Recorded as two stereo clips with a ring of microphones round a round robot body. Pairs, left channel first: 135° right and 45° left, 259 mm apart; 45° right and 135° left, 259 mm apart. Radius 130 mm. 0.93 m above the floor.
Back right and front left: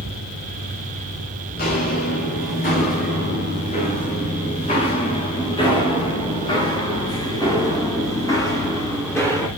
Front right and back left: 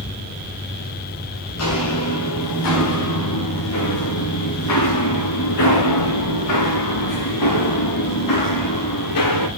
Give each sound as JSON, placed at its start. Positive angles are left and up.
{"t": 1.6, "sound": "footsteps", "azimuth_deg": -80, "distance_m": 8.0}